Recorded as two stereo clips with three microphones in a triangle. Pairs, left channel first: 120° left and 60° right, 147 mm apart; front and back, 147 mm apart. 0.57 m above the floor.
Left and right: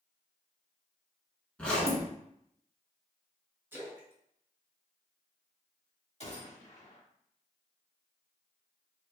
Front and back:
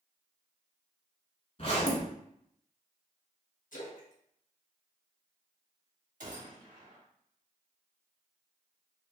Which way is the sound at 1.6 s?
40° left.